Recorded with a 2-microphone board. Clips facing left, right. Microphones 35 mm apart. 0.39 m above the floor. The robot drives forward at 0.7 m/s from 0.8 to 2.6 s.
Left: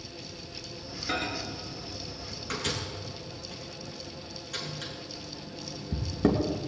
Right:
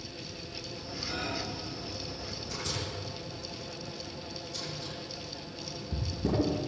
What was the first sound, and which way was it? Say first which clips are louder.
A microwave: left 4 dB; 60° left (ahead or behind).